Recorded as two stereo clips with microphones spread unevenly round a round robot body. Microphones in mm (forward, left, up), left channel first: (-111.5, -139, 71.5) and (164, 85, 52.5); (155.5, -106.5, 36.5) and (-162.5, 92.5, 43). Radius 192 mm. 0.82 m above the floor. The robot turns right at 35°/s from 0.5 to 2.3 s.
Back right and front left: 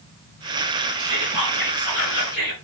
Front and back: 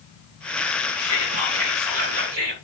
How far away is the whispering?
About 4.5 m.